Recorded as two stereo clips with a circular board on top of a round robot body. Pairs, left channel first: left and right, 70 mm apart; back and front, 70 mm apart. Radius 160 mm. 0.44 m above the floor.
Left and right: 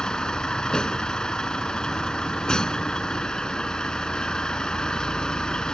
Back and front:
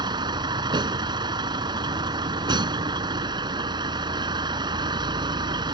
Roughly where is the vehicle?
Ahead.